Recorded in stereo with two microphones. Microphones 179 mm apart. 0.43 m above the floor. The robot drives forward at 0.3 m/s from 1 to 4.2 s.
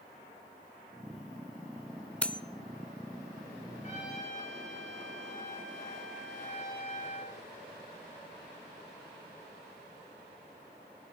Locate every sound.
2.2 s cutlery clinking: 5° left (ahead or behind), 0.5 m
3.8 s a trumpet: 45° left (ahead or behind), 8 m; by 7.3 s 40° left (ahead or behind), 8 m